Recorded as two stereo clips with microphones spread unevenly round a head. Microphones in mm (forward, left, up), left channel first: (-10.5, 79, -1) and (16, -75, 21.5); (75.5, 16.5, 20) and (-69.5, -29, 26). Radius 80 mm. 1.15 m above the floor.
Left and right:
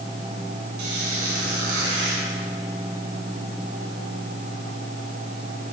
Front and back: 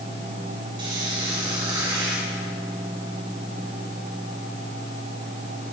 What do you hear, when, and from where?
0.8 s a squeak: 105° right, 6.5 m